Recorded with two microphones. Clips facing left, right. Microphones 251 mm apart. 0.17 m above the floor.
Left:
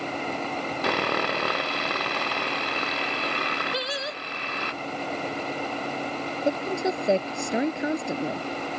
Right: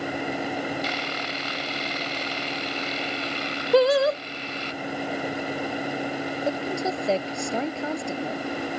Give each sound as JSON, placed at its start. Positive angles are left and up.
{"t": 0.8, "sound": "sawing", "side_deg": 65}
{"t": 3.7, "sound": "singing", "side_deg": -65}
{"t": 6.5, "sound": "a woman speaking", "side_deg": 20}